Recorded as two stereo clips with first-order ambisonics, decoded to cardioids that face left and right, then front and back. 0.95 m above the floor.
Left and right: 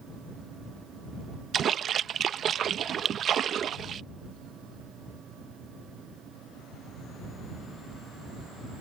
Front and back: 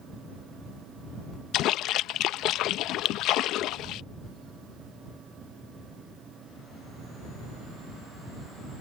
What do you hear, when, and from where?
1.5 s a splash: 35° right